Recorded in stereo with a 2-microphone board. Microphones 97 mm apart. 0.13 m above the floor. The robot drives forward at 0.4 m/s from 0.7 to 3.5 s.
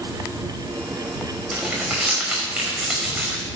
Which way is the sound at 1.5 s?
10° right (ahead or behind).